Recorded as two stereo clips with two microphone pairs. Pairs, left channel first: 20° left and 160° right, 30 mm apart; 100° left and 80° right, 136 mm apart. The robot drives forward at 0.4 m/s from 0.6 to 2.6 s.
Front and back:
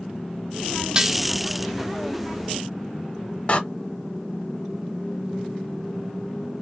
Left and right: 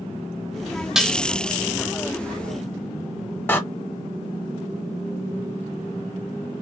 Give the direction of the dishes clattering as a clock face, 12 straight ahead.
5 o'clock.